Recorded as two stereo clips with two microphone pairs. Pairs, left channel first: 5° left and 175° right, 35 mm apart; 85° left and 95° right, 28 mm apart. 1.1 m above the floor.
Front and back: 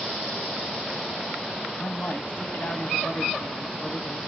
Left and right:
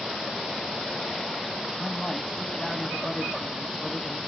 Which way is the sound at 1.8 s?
20° left.